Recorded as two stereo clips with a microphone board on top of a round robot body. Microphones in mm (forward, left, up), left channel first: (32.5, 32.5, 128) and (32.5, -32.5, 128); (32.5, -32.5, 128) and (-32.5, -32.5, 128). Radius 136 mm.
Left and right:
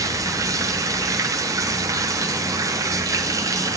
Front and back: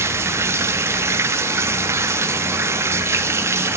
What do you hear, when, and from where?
0.0 s running water: 130° right, 1.0 m